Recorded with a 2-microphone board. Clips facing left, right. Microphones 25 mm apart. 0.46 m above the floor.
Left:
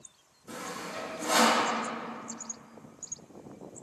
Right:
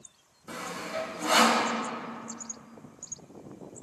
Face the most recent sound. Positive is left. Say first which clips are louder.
# right 3 dB
turn(degrees=-30)  # may be behind; listen again after turning